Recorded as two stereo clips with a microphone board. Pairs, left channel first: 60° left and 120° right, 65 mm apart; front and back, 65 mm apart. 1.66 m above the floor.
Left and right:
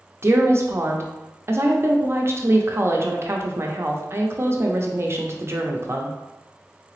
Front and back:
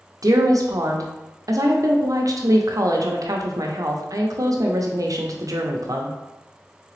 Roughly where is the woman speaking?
Behind.